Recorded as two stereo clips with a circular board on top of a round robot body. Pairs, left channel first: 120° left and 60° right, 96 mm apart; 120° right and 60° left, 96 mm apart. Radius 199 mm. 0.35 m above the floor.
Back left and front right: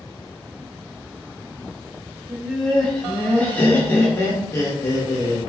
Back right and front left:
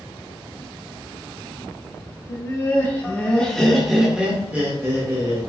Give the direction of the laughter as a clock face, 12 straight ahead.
5 o'clock.